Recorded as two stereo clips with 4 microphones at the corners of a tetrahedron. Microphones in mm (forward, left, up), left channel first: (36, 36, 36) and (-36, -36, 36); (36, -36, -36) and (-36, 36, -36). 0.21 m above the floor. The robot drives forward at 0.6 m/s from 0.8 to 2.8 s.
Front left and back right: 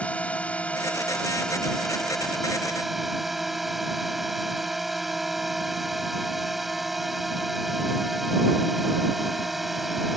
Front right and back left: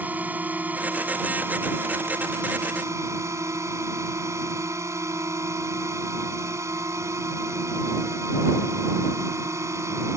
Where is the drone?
100° left; by 10.2 s 140° left.